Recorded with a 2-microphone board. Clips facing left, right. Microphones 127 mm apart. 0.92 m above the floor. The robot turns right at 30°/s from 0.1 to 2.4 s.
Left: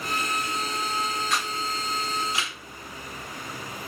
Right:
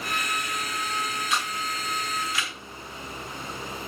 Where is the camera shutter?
Centre (ahead or behind), 7.5 m; by 2.5 s 30° left (ahead or behind), 7.5 m.